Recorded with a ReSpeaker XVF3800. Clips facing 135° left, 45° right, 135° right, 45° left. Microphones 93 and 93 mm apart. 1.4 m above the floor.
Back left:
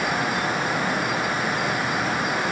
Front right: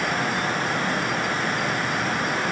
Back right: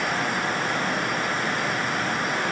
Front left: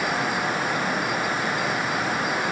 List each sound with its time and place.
Only background noise.